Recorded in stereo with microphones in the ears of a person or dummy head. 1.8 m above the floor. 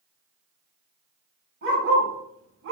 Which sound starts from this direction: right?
A dog barking, at 1.6 s.